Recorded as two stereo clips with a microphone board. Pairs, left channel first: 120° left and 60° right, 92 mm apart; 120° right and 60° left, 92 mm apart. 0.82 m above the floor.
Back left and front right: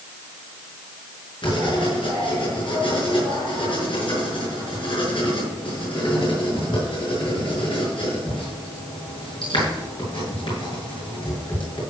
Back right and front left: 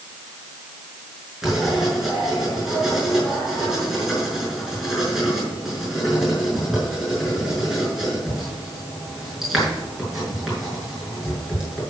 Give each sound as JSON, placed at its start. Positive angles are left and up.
{"t": 1.4, "sound": "writing", "azimuth_deg": 145, "distance_m": 6.0}